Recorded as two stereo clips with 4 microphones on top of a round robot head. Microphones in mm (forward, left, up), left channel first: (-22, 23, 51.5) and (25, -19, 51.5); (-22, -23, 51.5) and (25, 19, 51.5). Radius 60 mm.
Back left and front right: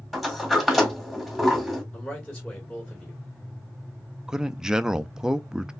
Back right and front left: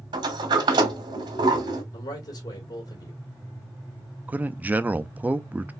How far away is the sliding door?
About 1.5 m.